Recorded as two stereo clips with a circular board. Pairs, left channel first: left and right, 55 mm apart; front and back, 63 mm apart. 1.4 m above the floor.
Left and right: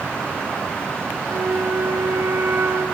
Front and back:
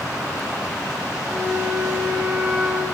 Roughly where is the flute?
Right.